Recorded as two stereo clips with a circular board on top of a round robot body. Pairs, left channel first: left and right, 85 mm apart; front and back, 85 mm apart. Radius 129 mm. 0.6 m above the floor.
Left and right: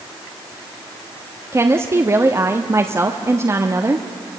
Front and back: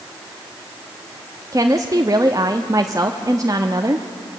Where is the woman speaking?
140° right, 1.3 m.